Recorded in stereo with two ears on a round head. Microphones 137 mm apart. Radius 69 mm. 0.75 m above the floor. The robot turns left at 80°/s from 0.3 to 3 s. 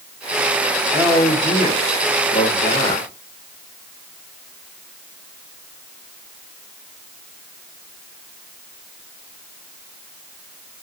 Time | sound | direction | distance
0.9 | a man speaking | 165° right | 4 m